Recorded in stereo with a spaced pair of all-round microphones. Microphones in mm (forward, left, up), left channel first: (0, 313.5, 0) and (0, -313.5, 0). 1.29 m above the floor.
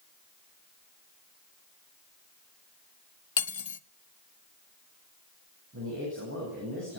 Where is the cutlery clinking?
50° left (ahead or behind), 0.7 m.